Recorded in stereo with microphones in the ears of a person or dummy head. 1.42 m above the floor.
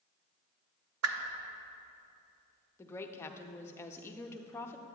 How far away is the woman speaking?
About 0.5 m.